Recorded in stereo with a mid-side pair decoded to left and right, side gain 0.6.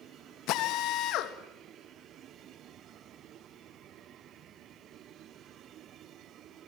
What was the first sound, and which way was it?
A drill, 65° left.